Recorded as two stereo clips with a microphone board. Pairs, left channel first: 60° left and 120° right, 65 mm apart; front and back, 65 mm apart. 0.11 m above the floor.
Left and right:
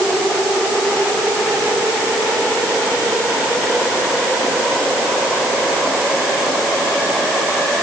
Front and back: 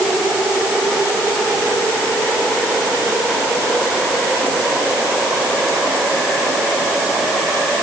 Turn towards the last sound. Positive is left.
No sound to turn to.